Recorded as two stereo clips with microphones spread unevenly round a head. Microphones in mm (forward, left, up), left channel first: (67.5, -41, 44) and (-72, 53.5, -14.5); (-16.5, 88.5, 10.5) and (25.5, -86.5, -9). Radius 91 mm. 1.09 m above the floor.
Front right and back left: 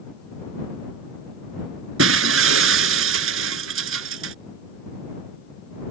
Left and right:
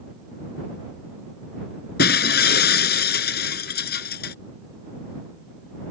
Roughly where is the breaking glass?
Behind left.